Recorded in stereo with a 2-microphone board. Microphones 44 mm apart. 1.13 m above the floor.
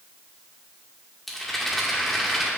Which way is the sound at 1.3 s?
5° left (ahead or behind).